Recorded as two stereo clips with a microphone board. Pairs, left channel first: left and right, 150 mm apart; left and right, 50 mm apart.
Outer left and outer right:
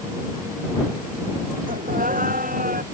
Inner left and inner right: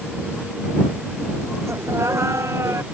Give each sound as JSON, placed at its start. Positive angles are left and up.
{"t": 1.7, "sound": "laughter", "side_deg": -70}